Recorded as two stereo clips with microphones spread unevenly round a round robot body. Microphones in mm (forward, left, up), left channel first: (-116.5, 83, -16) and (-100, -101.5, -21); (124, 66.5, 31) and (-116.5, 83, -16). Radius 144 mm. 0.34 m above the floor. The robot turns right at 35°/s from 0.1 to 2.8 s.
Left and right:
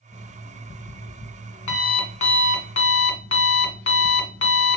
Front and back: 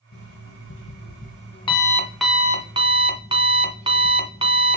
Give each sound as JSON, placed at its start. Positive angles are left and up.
{"t": 0.1, "sound": "an alarm clock", "azimuth_deg": 15, "distance_m": 1.9}